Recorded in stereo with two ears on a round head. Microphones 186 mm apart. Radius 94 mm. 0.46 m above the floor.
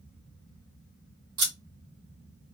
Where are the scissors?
75° right (ahead or behind), 1.8 m.